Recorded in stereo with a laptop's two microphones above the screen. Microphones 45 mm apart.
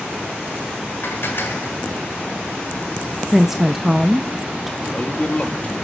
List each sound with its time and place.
1.0 s dishes clattering: 70° left (ahead or behind), 2 m
3.3 s a woman speaking: 10° right (ahead or behind), 0.6 m
4.8 s a man speaking: 30° left (ahead or behind), 2.0 m